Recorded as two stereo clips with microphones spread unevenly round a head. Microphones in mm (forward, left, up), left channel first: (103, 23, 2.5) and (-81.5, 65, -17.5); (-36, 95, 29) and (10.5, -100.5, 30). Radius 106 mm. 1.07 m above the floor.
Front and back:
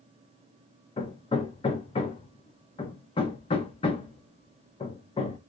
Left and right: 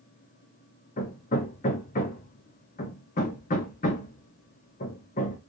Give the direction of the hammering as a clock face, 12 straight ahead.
10 o'clock.